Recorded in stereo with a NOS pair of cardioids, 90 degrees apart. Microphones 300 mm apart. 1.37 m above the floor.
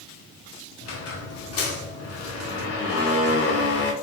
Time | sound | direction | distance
0.8 | a squeak | 50° left | 0.6 m